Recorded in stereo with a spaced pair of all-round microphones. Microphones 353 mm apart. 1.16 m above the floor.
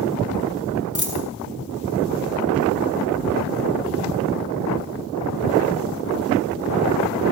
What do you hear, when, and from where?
0.9 s a dropped coin: 50° left (ahead or behind), 2.5 m